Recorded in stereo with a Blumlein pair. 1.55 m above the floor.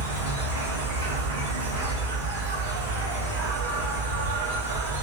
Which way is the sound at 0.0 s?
65° right.